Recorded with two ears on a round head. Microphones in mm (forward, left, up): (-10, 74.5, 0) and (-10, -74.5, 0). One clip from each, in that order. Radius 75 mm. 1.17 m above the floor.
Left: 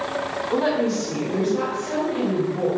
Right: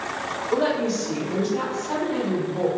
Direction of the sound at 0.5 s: 15° right (ahead or behind).